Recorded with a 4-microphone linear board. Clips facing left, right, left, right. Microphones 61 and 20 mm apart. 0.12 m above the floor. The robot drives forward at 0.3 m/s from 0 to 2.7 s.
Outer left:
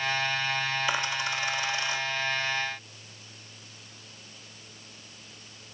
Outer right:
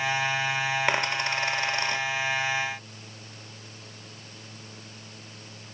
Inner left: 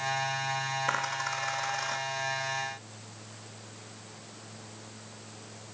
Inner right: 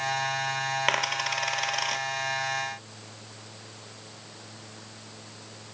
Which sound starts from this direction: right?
A dropped coin, at 0.9 s.